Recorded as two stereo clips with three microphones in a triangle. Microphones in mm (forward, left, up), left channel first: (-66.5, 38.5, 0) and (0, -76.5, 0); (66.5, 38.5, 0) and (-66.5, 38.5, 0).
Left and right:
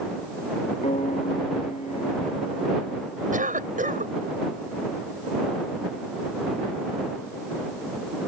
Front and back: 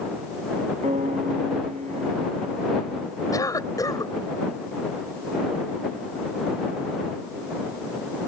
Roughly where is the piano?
Behind left.